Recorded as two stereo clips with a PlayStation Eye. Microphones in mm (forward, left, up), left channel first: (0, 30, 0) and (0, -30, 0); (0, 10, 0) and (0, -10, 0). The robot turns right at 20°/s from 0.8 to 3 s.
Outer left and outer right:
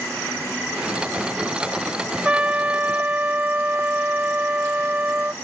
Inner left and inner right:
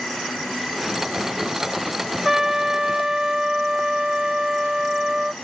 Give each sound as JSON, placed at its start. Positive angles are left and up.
{"t": 2.2, "sound": "a trumpet", "side_deg": -20}